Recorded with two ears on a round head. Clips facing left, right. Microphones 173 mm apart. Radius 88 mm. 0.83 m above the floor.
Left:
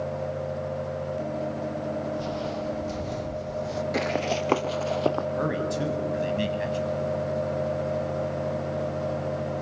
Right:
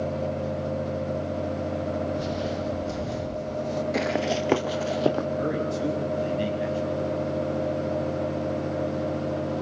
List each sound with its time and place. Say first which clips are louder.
2.2 s footsteps: right 2 dB; 20° right (ahead or behind), 1.6 m; by 3.8 s 5° left (ahead or behind), 2 m
3.9 s running footsteps: even; centre (ahead or behind), 0.9 m; by 5.3 s 15° right (ahead or behind), 1.8 m
5.4 s a man speaking: right 1 dB; 70° left (ahead or behind), 7 m